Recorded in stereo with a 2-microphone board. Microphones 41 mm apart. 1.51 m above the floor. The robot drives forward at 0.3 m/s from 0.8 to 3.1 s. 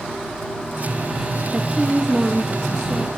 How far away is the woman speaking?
About 0.5 m.